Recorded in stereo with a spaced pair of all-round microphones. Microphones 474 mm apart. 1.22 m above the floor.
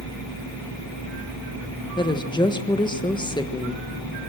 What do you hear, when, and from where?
2.0 s a woman speaking: 10° left (ahead or behind), 1.3 m